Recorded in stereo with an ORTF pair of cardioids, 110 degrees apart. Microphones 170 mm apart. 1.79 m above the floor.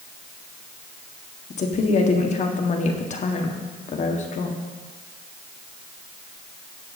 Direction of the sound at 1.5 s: 45° left.